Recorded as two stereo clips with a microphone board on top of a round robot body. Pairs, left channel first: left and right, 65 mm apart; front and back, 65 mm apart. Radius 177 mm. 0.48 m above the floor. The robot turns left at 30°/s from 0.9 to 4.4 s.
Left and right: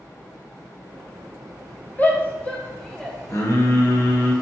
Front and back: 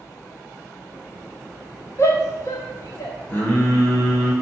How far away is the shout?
About 1.8 m.